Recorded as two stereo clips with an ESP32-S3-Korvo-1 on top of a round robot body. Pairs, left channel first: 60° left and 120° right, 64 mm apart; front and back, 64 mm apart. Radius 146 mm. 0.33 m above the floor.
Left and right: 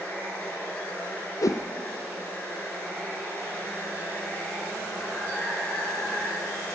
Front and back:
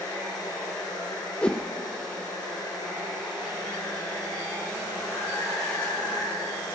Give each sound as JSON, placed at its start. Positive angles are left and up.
{"t": 0.0, "sound": "running water", "azimuth_deg": 0, "distance_m": 5.0}
{"t": 1.4, "sound": "a whoosh", "azimuth_deg": 70, "distance_m": 0.7}